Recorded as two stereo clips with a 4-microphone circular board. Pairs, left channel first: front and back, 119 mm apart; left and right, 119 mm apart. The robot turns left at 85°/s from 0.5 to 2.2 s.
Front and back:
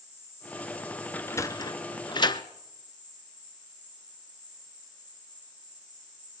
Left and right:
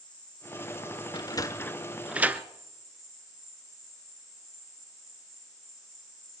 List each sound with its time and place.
0.0 s an insect: 145° left, 10 m; by 6.4 s straight ahead, 10 m
1.1 s a sliding door: 70° left, 0.6 m; by 2.4 s 20° right, 0.6 m